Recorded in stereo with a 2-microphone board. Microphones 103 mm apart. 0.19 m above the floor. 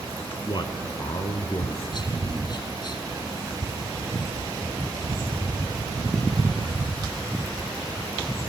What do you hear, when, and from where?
0.5 s a man speaking: 45° left (ahead or behind), 2.0 m